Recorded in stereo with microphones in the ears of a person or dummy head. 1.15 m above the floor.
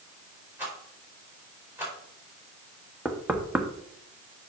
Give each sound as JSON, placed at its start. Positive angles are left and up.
{"t": 0.6, "sound": "a rattle", "side_deg": -10, "distance_m": 3.5}
{"t": 3.0, "sound": "knocking", "side_deg": -5, "distance_m": 1.1}